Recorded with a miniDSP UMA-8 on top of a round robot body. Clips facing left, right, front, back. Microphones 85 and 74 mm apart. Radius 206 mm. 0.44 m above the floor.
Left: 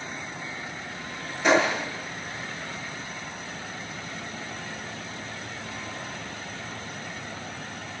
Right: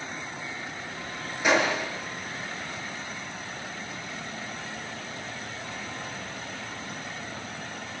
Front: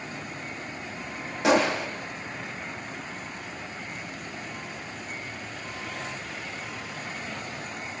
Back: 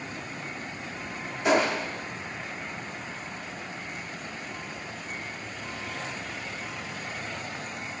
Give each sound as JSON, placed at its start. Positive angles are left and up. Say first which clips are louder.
{"t": 1.4, "sound": "a gunshot", "louder": "left 2 dB, front 2 dB", "azimuth_deg": -10, "distance_m": 9.0}